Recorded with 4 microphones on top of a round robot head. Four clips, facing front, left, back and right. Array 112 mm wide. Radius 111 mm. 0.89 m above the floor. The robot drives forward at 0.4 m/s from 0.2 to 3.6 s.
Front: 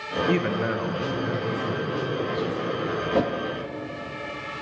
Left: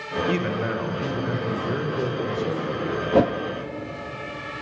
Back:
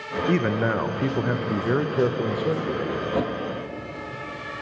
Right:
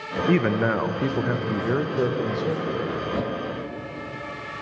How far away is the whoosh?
About 0.5 m.